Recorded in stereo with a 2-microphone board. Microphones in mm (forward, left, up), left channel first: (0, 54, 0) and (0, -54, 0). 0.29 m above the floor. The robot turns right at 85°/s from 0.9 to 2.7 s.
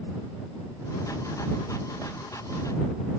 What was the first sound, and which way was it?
Only background noise.